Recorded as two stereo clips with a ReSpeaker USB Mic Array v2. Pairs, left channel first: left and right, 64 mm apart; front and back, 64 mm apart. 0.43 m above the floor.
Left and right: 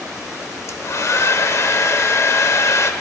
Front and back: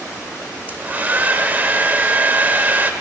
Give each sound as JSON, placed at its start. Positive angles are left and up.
{"t": 0.7, "sound": "a hair dryer", "azimuth_deg": 125, "distance_m": 0.7}